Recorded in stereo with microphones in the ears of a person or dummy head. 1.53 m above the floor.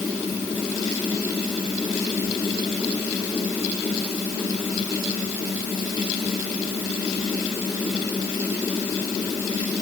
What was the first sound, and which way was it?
Only background noise.